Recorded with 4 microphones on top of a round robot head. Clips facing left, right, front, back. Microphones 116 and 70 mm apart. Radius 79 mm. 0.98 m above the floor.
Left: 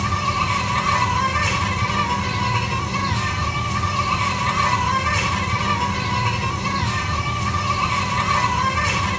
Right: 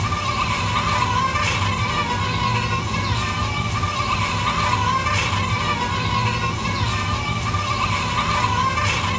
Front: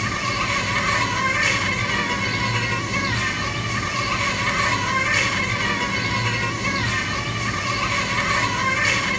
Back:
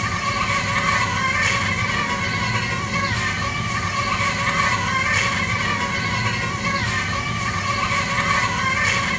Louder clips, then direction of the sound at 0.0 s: Left 1 dB, back 1 dB; 90° left.